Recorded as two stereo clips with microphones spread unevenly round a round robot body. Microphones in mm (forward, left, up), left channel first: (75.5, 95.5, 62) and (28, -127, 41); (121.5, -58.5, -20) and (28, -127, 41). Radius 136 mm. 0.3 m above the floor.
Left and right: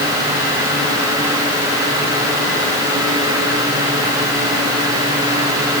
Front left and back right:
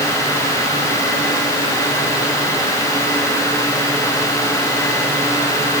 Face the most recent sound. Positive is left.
No sound to turn to.